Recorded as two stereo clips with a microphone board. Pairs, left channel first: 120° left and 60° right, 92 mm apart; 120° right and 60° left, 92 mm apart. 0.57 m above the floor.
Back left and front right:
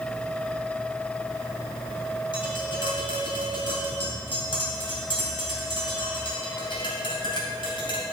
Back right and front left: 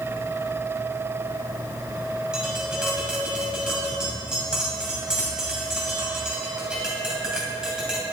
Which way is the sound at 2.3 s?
140° left.